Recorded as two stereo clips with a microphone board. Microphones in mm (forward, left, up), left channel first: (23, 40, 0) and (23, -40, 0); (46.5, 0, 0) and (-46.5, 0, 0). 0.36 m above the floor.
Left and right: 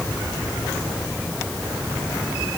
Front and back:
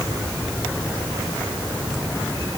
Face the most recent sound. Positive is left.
No sound to turn to.